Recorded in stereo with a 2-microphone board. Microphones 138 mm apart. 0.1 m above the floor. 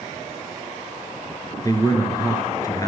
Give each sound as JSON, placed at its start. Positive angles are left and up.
{"t": 1.6, "sound": "a man speaking", "side_deg": 25, "distance_m": 1.4}